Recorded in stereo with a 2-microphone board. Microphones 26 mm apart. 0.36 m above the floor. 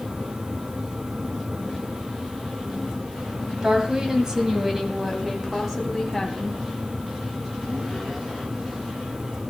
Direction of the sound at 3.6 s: 30° right (ahead or behind).